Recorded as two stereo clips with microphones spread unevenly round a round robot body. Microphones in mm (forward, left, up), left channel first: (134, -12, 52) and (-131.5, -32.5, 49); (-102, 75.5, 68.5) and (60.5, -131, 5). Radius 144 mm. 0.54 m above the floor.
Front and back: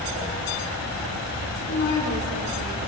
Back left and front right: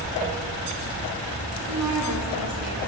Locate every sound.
1.7 s a woman speaking: 50° right, 7 m